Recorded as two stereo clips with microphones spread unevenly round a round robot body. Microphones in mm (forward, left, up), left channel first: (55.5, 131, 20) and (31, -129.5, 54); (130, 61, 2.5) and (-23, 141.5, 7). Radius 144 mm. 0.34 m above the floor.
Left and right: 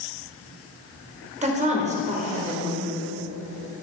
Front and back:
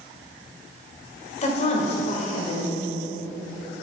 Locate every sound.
1.4 s a woman speaking: 35° right, 1.6 m